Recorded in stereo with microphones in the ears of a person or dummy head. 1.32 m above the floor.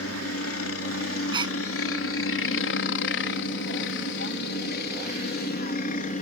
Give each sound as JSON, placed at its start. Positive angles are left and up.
{"t": 0.0, "sound": "a helicopter", "side_deg": 70}
{"t": 1.3, "sound": "a gasp", "side_deg": -30}